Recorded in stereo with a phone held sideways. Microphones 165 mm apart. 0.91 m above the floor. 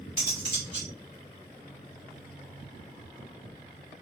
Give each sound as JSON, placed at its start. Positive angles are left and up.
{"t": 0.2, "sound": "cutlery clinking", "side_deg": -50, "distance_m": 1.9}